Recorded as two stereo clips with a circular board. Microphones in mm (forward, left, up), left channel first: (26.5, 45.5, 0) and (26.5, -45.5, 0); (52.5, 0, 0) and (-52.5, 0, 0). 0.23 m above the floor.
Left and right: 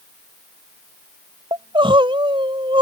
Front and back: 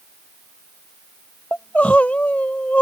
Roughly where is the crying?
Right.